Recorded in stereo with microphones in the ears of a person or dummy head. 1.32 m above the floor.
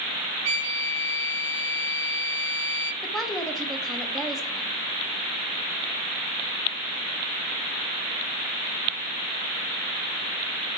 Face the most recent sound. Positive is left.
turn(degrees=0)  # may be behind; listen again after turning